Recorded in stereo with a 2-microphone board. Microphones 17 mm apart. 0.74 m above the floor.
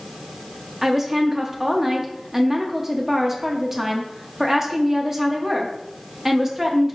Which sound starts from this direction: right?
A woman speaking, at 0.8 s.